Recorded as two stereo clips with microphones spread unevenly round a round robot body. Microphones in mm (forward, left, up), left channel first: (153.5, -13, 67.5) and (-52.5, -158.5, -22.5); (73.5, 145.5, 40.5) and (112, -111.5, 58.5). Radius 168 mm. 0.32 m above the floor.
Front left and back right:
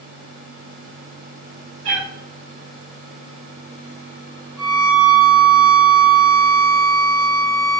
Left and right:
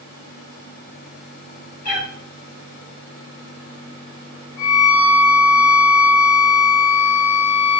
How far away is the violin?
About 3.5 m.